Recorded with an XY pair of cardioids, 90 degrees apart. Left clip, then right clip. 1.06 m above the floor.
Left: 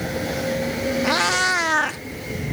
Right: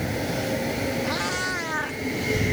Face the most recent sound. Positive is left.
turn(degrees=65)